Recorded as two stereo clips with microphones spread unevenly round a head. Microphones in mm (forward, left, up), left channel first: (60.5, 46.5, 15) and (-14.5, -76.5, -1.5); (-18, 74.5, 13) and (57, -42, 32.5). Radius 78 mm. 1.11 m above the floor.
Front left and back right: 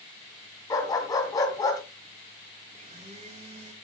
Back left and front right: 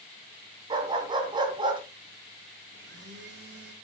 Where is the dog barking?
5° right, 2.5 m.